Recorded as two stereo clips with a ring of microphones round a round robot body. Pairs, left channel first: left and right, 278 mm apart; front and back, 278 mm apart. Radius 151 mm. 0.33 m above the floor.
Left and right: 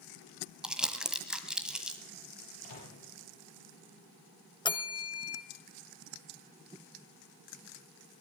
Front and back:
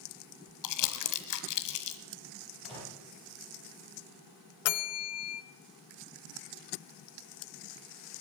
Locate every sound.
0.6 s crumpling: 5° right, 1.3 m
2.6 s a microwave: 90° left, 6.5 m
4.7 s a bell: 20° left, 0.9 m